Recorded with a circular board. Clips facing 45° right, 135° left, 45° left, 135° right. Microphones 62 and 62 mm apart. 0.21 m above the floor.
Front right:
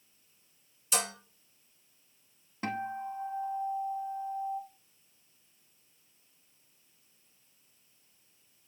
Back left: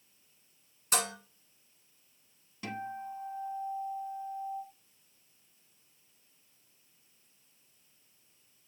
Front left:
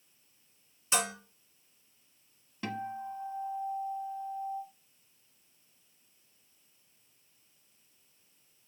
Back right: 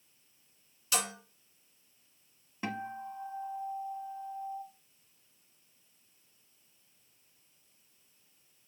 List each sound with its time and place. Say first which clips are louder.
0.9 s dishes clattering: back left 1 dB, front left 3 dB; 105° left, 1.7 m
2.6 s a guitar: front right 4 dB, front left 1 dB; 75° right, 0.8 m